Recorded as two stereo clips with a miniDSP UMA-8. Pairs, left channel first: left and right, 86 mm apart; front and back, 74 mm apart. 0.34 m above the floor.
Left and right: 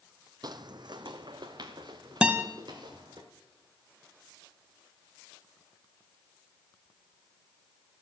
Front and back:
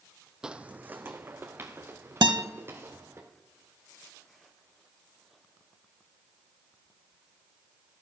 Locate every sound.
0.4 s footsteps: 100° right, 0.5 m; by 3.2 s 125° right, 3 m
2.2 s a guitar: 170° right, 0.7 m